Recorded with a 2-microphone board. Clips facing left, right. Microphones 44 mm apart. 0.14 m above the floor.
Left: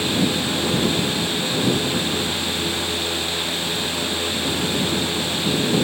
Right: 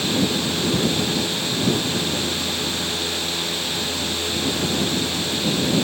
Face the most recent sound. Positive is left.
No sound to turn to.